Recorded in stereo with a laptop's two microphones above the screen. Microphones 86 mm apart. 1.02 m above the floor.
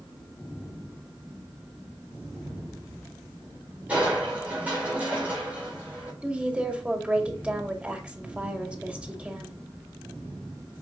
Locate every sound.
3.9 s crushing: 15° right (ahead or behind), 3.5 m
6.2 s a woman speaking: 15° right (ahead or behind), 2.5 m